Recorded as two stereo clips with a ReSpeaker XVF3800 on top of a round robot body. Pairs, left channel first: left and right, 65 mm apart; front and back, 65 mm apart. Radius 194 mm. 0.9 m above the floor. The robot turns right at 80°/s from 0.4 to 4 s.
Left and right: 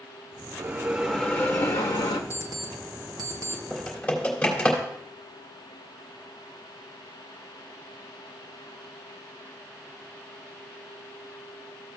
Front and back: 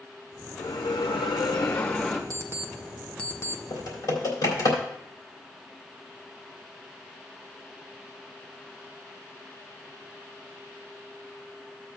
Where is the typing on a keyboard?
5° right, 3 m; by 4.8 s 15° left, 3 m.